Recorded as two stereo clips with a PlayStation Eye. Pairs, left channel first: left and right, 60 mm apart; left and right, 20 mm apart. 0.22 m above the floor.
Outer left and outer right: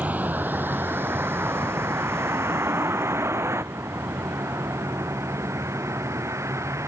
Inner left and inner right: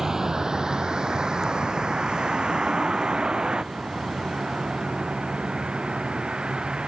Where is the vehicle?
25° right (ahead or behind); by 6.9 s 55° right (ahead or behind).